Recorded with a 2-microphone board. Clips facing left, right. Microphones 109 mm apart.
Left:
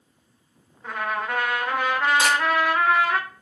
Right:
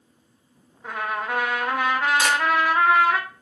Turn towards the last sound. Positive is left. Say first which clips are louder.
# left 1 dB
turn(degrees=35)  # may be behind; listen again after turning